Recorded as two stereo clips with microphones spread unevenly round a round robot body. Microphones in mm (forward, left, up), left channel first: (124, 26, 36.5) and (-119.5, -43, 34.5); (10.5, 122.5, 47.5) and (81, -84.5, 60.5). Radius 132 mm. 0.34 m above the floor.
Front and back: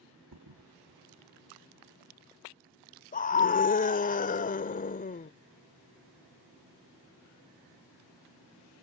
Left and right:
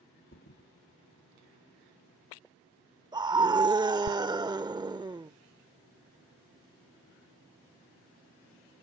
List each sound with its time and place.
0.3 s a thud: 165° left
3.1 s a scream: 10° right